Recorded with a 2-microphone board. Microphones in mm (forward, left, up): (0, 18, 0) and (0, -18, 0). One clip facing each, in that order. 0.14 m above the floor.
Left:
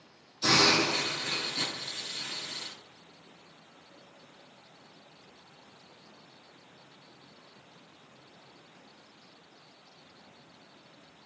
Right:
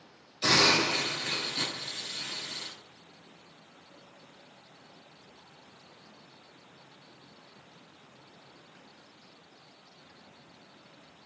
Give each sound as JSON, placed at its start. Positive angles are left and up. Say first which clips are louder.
{"t": 0.4, "sound": "a hiss", "louder": "even", "side_deg": -35, "distance_m": 1.6}